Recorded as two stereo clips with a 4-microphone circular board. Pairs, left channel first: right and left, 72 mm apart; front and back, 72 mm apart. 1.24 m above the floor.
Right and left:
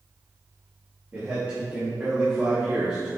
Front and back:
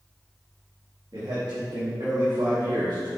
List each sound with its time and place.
1.1 s a man speaking: 145° left, 3 m; by 3.1 s 165° left, 3.5 m